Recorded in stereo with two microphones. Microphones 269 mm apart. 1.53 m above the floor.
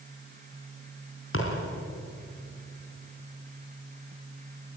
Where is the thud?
50° left (ahead or behind), 4.5 m.